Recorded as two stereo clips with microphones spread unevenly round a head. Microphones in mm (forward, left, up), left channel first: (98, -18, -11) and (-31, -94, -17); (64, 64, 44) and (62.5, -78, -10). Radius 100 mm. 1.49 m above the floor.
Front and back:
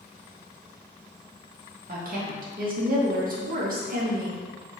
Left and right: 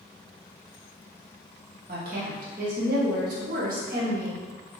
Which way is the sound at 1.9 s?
125° right.